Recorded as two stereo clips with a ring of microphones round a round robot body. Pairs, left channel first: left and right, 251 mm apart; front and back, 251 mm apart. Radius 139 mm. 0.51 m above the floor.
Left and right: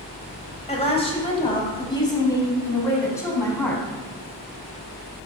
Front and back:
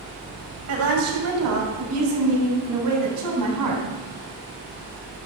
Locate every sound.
0.7 s a woman speaking: 155° left, 2.5 m; by 3.9 s 170° left, 4 m